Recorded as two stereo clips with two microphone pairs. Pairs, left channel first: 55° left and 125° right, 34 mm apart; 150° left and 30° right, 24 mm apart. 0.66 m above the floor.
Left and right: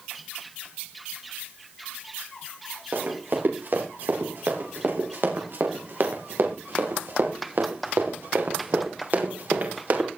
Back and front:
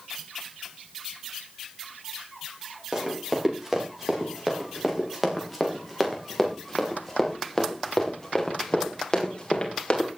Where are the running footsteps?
100° right, 9.5 m; by 10.1 s 155° right, 5.5 m.